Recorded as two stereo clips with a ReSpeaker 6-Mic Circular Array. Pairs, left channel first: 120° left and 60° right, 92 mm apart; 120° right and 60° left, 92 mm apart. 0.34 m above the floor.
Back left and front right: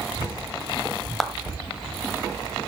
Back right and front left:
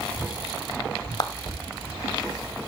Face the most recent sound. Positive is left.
turn(degrees=-155)